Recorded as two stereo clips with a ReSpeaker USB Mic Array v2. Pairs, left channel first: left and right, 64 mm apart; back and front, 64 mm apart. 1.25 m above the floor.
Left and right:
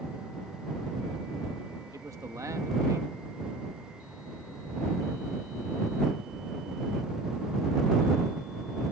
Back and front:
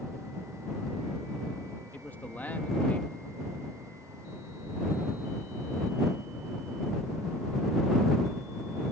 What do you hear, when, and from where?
1.9 s a man speaking: 120° right